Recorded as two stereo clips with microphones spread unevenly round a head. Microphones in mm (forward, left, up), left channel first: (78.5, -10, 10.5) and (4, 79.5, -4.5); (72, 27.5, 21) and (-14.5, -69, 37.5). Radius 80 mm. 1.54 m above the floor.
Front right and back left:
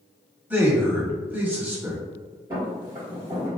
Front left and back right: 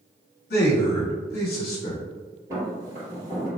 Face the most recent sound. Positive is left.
turn(degrees=-170)